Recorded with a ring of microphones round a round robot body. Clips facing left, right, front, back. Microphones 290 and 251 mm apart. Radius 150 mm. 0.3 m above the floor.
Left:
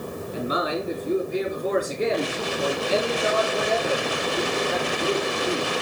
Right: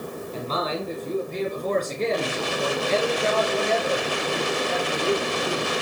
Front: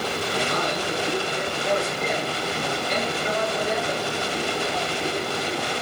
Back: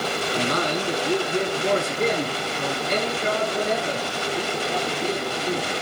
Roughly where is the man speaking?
Behind.